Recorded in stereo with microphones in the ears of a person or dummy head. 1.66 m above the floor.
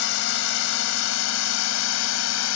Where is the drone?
75° left (ahead or behind); by 2.6 s 80° left.